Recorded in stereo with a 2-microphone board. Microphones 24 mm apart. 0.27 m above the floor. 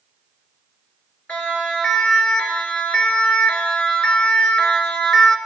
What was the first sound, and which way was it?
A siren, 70° left (ahead or behind).